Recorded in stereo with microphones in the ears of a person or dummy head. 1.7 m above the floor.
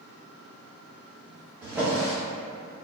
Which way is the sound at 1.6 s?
5° right (ahead or behind).